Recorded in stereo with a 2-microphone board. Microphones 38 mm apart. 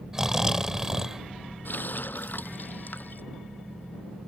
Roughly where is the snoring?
Centre.